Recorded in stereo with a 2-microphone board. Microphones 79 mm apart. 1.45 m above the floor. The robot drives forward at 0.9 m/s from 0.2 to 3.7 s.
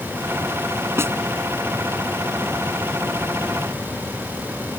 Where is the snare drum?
30° right (ahead or behind); by 1.1 s 35° right (ahead or behind).